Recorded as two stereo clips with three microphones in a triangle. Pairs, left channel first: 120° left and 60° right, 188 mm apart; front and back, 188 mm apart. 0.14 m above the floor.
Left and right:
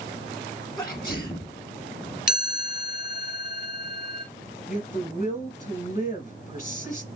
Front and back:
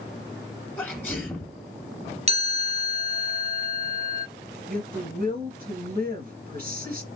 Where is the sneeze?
70° left, 1.2 m.